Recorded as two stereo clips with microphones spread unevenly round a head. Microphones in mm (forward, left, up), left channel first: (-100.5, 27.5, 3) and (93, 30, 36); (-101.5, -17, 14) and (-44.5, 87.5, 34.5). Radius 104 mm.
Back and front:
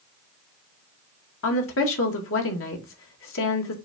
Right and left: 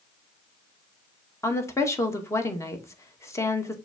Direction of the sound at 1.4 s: 175° left.